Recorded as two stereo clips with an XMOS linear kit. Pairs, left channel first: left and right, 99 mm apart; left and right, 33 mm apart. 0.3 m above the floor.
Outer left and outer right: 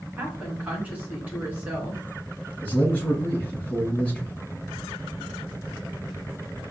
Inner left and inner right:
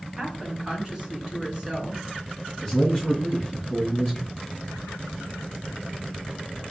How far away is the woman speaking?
About 3 m.